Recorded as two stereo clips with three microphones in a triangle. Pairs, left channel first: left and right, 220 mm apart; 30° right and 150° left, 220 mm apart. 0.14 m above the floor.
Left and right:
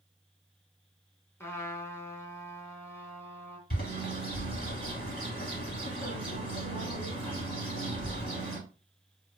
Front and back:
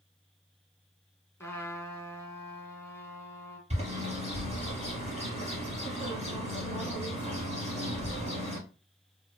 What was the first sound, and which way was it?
A trumpet, 30° left.